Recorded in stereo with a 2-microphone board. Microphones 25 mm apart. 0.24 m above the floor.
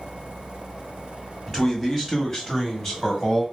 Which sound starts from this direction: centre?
A man speaking, at 1.5 s.